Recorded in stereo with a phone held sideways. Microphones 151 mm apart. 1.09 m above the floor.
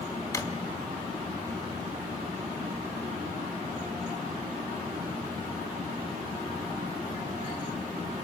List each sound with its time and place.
0.3 s a drawer: 20° left (ahead or behind), 1.1 m